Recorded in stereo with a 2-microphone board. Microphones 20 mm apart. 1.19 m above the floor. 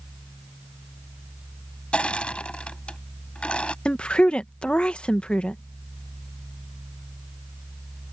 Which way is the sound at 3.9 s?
65° left (ahead or behind).